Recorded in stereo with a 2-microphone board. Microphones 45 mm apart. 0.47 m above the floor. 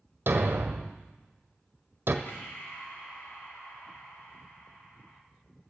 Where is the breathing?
55° left (ahead or behind), 2.5 m.